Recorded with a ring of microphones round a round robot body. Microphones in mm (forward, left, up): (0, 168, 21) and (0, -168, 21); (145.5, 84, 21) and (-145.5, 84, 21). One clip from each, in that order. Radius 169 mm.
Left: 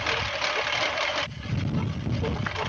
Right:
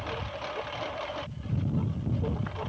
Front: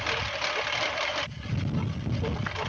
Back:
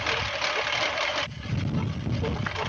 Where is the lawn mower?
105° left.